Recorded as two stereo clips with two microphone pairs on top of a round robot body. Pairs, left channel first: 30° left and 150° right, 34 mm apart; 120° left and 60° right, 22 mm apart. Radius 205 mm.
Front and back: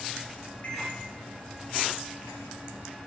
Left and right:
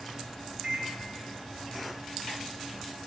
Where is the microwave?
20° right, 4 m.